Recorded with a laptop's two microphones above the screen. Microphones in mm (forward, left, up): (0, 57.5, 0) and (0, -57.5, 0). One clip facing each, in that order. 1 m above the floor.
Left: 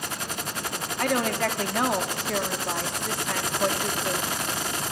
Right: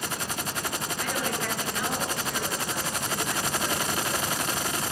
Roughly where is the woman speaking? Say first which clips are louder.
Left 8 dB; left.